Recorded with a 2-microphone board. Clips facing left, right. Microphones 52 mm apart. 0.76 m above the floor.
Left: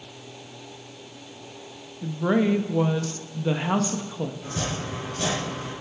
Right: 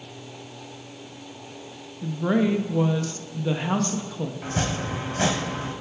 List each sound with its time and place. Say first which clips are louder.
2.0 s a woman speaking: even; 10° left (ahead or behind), 0.5 m
4.4 s chopping: right 3 dB; 60° right (ahead or behind), 1.5 m